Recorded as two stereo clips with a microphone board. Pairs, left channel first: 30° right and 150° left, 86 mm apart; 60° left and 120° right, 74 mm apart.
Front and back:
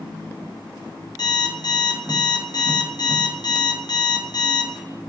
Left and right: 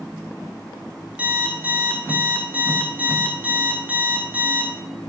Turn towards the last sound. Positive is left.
turn(degrees=-50)